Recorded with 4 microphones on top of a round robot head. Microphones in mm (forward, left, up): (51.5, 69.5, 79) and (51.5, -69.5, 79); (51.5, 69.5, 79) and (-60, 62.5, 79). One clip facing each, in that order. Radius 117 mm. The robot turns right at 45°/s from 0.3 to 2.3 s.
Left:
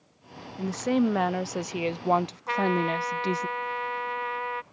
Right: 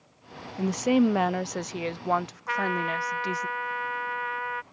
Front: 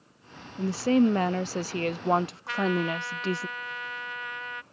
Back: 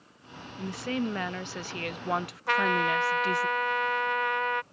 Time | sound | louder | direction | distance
0.6 | a woman speaking | right 2 dB, front 9 dB | 30° right | ?
2.5 | a trumpet | left 3 dB, back 3 dB | 155° left | ?